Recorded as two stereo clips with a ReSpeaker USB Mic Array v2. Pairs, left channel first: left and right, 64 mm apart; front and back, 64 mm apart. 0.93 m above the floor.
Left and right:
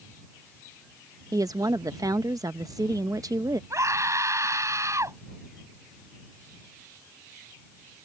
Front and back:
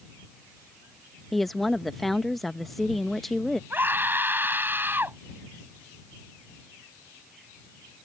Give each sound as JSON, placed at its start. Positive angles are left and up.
{"t": 1.3, "sound": "a woman speaking", "azimuth_deg": -90}
{"t": 3.7, "sound": "a scream", "azimuth_deg": -125}